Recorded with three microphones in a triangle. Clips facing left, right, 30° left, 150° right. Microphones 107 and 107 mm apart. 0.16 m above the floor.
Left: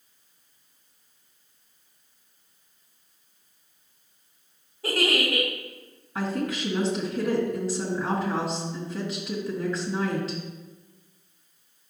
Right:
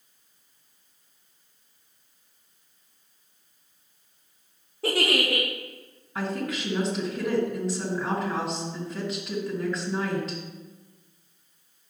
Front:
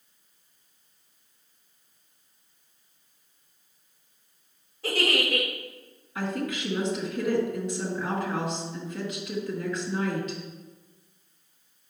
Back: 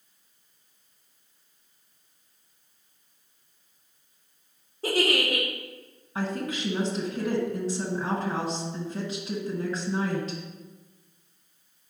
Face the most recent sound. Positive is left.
turn(degrees=175)